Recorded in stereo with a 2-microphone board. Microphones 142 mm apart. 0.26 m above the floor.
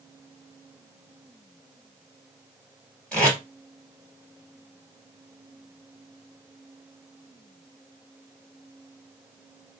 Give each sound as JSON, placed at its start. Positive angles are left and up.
{"t": 3.1, "sound": "tape being pulled", "side_deg": 10, "distance_m": 1.6}